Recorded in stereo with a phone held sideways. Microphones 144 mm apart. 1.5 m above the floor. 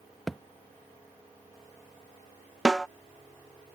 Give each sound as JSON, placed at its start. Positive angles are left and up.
{"t": 0.3, "sound": "a thud", "side_deg": 0}
{"t": 2.6, "sound": "a snare drum", "side_deg": 0}